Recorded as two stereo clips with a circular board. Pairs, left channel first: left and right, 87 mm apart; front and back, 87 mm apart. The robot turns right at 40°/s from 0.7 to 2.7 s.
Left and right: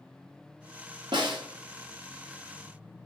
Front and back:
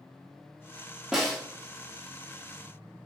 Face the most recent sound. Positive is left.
turn(degrees=-30)